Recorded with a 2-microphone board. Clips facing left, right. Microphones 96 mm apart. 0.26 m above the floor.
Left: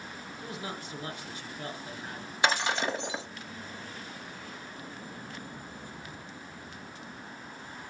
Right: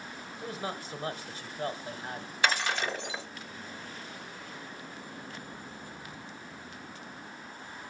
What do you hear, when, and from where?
0.4 s a man speaking: 40° right (ahead or behind), 1.2 m
2.4 s breaking glass: 20° left (ahead or behind), 0.8 m